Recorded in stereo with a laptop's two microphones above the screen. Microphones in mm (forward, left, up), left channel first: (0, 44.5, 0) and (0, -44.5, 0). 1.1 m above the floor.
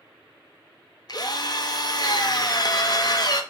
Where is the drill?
50° left (ahead or behind), 0.5 m.